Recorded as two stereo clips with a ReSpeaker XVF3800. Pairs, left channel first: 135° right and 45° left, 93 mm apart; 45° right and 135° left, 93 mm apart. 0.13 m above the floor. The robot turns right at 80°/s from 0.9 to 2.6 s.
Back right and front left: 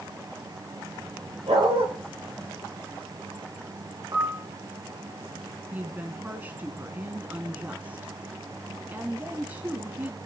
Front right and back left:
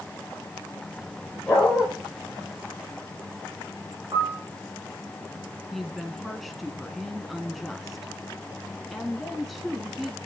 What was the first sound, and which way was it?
A dog barking, 25° left.